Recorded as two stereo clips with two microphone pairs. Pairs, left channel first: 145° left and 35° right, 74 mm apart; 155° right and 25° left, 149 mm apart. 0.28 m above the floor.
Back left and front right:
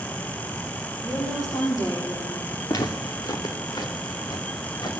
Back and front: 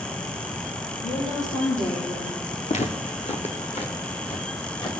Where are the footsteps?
170° left, 2.5 m; by 4.9 s 155° left, 4.5 m.